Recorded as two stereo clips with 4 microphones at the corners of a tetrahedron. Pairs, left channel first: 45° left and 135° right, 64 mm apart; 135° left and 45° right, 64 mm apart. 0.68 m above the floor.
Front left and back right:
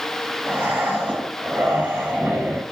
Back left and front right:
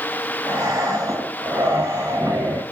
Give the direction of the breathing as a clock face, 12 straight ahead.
3 o'clock.